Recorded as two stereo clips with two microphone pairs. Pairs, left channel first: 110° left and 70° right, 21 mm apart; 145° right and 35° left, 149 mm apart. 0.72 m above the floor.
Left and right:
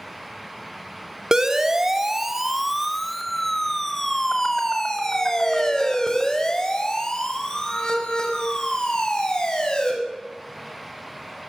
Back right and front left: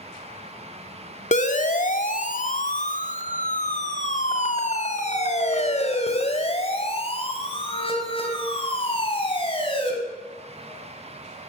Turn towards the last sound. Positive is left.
turn(degrees=160)